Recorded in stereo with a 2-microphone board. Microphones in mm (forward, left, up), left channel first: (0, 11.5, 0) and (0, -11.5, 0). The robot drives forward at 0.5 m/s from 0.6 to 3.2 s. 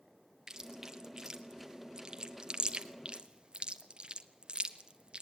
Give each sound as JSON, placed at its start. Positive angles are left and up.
{"t": 0.5, "sound": "chewing", "side_deg": -20, "distance_m": 2.5}